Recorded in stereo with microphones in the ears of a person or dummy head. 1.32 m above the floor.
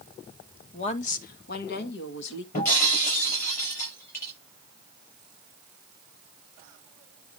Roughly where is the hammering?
I don't hear hammering.